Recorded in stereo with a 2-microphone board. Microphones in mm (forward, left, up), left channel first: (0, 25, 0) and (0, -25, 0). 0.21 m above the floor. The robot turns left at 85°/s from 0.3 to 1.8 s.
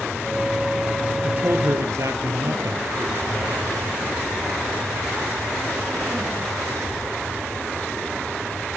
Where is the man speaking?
25° right, 3.5 m; by 3.6 s 70° right, 3.5 m.